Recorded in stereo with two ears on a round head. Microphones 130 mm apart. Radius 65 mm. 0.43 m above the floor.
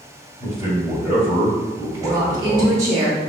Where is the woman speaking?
25° right (ahead or behind), 0.8 m.